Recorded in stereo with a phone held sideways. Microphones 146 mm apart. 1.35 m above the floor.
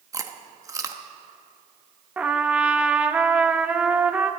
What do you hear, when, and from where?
0.1 s chewing: 20° right (ahead or behind), 1.0 m
2.2 s a trumpet: 10° right (ahead or behind), 0.7 m